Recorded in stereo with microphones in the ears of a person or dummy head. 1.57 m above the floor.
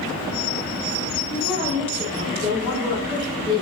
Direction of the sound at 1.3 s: 5° left (ahead or behind).